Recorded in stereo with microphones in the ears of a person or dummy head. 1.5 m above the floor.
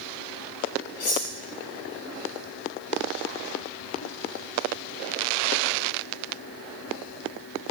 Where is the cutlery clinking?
50° left (ahead or behind), 1.7 m.